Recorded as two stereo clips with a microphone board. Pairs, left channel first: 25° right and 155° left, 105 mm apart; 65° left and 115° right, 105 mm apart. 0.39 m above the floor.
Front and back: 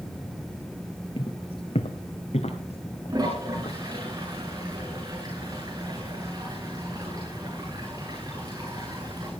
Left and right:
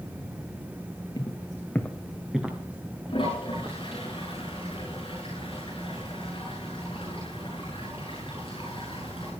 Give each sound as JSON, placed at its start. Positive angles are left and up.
{"t": 1.2, "sound": "footsteps", "azimuth_deg": 15, "distance_m": 1.7}
{"t": 3.1, "sound": "a toilet flushing", "azimuth_deg": 105, "distance_m": 9.0}